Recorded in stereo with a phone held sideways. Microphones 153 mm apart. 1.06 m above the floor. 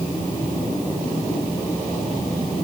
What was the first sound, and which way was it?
Only background noise.